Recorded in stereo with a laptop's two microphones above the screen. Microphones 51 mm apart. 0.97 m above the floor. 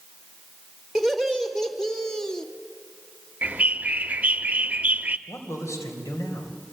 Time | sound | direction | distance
0.9 | laughter | 5° left (ahead or behind) | 4 m
3.4 | a bird | 30° right (ahead or behind) | 0.7 m
5.3 | a man speaking | 75° left (ahead or behind) | 4 m